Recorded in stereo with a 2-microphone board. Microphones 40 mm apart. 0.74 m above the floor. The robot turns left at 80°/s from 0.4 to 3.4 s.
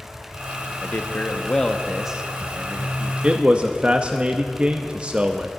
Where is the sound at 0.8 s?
85° left, 0.6 m; by 3.1 s 100° right, 0.6 m.